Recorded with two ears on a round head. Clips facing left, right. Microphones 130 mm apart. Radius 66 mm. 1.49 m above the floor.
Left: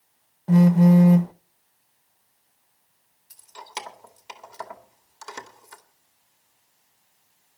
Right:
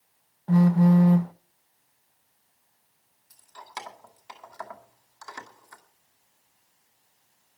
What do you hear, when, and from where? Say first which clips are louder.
0.5 s a phone buzzing: left 3 dB; 20° left (ahead or behind), 0.7 m
3.3 s keys jangling: left 3 dB; 25° left (ahead or behind), 2 m